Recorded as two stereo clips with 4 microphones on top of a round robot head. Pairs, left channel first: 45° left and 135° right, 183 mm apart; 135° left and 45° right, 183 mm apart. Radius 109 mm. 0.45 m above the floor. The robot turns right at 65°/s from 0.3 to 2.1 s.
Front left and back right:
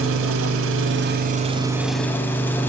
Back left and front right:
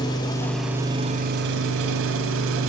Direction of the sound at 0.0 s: 155° right.